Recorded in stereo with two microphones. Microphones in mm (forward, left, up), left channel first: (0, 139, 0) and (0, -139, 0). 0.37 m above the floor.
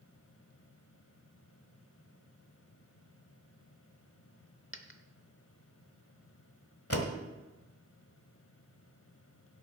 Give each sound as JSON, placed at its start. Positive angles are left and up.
{"t": 4.7, "sound": "a dropped coin", "side_deg": 45, "distance_m": 0.8}
{"t": 6.9, "sound": "a door slam", "side_deg": 55, "distance_m": 1.4}